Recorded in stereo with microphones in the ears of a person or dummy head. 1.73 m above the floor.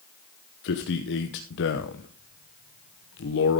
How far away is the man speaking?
About 1.0 m.